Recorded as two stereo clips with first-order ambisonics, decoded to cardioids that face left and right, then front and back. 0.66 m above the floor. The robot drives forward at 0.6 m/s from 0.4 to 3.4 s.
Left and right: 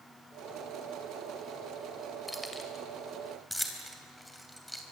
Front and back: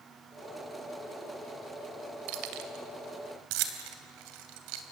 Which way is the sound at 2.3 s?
Straight behind.